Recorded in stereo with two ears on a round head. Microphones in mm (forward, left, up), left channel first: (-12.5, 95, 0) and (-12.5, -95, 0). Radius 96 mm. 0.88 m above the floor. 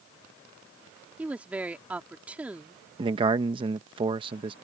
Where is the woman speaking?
5° right (ahead or behind).